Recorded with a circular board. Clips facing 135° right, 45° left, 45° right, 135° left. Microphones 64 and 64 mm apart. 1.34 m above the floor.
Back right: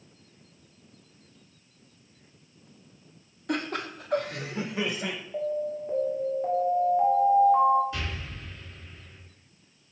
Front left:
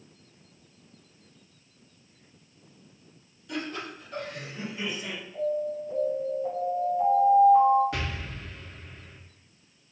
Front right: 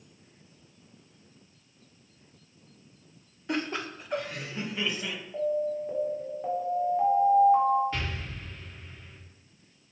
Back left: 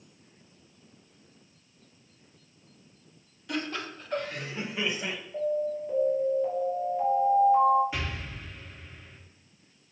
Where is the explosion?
55° left, 1.7 m.